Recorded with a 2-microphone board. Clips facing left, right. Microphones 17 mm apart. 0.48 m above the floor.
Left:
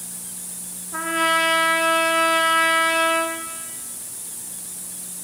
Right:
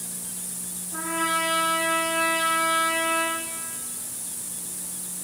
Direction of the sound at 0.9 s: 40° left (ahead or behind).